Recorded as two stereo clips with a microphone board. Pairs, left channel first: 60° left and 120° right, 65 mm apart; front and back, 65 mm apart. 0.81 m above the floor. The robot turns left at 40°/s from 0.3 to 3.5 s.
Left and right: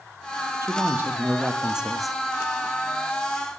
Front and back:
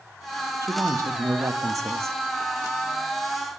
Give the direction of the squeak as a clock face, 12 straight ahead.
I don't hear a squeak.